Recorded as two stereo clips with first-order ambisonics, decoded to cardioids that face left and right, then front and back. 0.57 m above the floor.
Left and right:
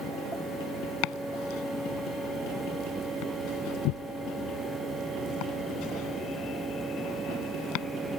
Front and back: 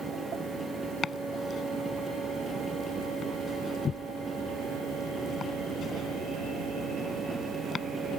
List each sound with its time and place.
1.0 s chopping: 65° left